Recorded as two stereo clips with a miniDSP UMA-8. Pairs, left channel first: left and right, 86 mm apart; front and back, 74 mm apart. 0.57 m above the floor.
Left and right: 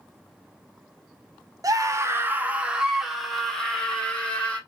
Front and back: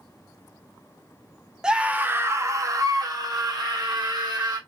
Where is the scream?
105° right, 0.8 m; by 4.6 s 165° left, 1.8 m.